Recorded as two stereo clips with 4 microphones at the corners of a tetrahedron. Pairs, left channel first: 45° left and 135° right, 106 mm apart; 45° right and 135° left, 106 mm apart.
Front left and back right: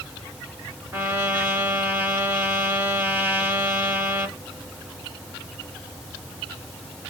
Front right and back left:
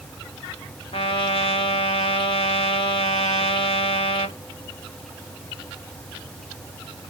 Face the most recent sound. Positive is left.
turn(degrees=-65)